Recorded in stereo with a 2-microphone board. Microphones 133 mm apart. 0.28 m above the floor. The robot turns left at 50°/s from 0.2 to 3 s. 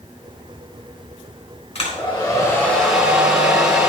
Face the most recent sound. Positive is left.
turn(degrees=-5)